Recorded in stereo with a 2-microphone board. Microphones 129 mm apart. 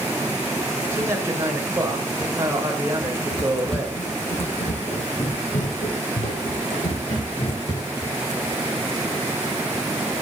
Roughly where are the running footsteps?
Left.